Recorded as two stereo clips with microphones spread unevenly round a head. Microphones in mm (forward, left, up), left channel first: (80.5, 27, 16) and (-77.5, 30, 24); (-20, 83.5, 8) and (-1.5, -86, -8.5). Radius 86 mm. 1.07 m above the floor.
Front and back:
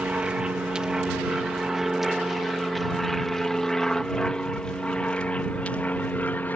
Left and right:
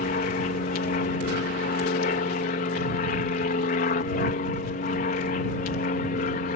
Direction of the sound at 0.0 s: 100° left.